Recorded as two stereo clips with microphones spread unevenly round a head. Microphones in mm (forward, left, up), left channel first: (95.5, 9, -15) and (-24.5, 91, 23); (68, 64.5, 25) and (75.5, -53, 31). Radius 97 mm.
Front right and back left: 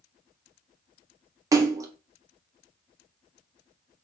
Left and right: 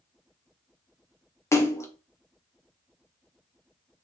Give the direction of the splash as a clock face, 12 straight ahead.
10 o'clock.